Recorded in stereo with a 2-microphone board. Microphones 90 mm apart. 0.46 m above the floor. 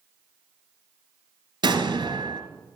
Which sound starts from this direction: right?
An explosion, at 1.6 s.